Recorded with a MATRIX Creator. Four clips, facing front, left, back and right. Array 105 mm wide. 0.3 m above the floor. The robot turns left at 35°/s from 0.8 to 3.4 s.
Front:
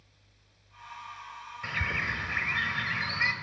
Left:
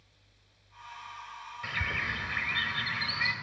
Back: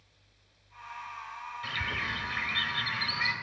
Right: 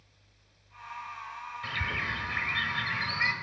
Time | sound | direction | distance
1.6 | a bird | 25° left | 1.2 m